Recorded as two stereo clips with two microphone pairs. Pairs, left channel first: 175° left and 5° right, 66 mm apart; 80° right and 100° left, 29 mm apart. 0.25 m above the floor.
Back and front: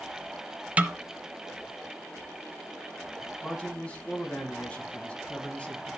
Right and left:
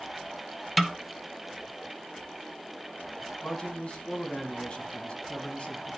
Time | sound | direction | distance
0.8 | a snare drum | 20° left | 0.5 m
3.4 | a man speaking | 115° right | 1.6 m